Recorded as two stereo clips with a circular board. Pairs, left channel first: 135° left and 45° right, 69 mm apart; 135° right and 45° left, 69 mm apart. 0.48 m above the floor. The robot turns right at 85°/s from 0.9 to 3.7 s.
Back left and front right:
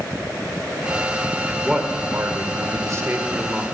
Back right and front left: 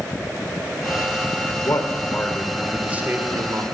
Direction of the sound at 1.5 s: 140° right.